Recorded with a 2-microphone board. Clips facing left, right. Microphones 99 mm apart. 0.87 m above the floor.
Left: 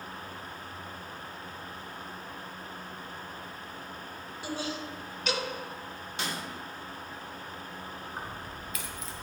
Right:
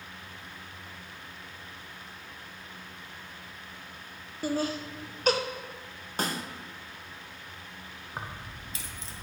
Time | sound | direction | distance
4.4 | laughter | 45° right (ahead or behind) | 0.6 m
6.2 | a snare drum | 45° right (ahead or behind) | 0.5 m
8.2 | keys jangling | 30° right (ahead or behind) | 0.6 m